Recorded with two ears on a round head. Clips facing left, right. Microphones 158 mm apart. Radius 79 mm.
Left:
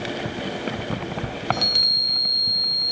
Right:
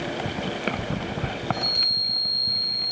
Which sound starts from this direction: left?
A chime, at 1.5 s.